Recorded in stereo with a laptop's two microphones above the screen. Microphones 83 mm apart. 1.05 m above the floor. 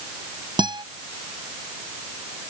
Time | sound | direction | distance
0.6 | a guitar | 65° right (ahead or behind) | ?